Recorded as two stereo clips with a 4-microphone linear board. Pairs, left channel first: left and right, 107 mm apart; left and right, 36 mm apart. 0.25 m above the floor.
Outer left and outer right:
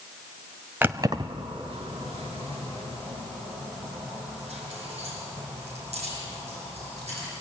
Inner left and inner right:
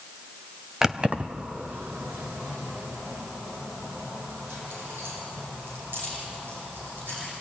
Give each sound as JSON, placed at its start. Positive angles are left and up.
{"t": 0.8, "sound": "keys jangling", "side_deg": -15, "distance_m": 0.9}